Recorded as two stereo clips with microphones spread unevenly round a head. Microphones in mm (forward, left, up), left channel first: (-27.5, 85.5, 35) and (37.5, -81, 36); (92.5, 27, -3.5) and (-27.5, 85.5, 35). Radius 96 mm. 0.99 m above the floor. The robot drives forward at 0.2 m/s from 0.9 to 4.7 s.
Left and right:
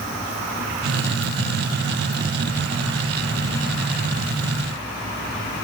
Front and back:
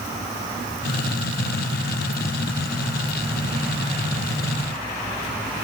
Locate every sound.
Only background noise.